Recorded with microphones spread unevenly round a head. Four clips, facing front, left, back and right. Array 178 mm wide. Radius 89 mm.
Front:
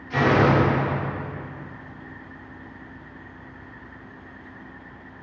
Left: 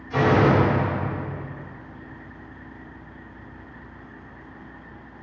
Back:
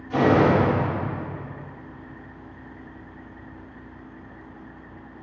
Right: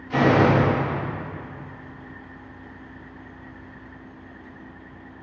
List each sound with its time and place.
0.1 s a door slam: 110° right, 2 m